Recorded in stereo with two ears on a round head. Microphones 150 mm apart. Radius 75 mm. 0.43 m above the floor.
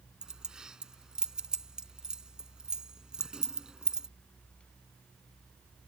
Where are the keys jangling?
5° right (ahead or behind).